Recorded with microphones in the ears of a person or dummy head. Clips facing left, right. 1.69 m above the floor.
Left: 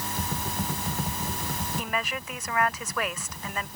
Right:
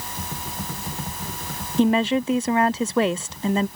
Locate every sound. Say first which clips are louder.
1.8 s a woman speaking: right 20 dB; 25° right (ahead or behind)